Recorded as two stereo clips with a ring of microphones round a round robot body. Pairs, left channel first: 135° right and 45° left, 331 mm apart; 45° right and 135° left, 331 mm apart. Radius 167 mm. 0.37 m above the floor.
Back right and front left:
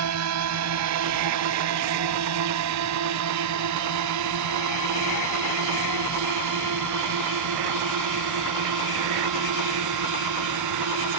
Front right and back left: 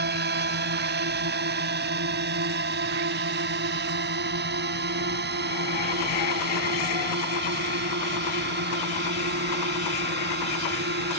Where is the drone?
80° left; by 11.2 s 75° left.